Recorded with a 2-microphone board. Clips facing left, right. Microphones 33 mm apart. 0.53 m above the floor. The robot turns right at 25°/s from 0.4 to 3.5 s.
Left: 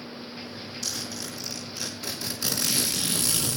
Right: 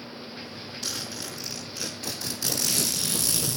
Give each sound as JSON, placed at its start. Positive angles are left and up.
{"t": 0.8, "sound": "a zipper", "azimuth_deg": -25, "distance_m": 6.5}